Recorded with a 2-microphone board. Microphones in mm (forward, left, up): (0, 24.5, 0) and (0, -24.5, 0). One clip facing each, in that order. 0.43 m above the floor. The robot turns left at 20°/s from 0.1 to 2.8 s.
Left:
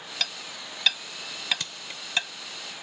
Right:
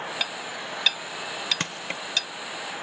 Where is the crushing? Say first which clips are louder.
Right 7 dB; 50° right (ahead or behind); by 2.0 s 55° right (ahead or behind).